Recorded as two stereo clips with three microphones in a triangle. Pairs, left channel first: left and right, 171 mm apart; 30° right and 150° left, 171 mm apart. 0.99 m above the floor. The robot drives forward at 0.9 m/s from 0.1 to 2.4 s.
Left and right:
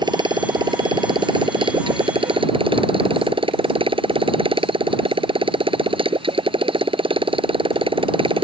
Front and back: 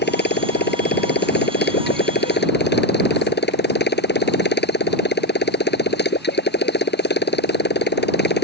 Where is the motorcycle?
25° right; by 8.4 s 30° right.